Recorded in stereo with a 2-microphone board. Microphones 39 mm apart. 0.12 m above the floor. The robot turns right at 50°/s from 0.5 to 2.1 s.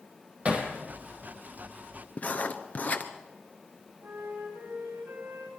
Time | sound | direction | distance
0.5 | hammering | 30° right (ahead or behind) | 3 m
2.2 | writing | 40° left (ahead or behind) | 1.3 m
4.0 | a flute | 65° right (ahead or behind) | 8 m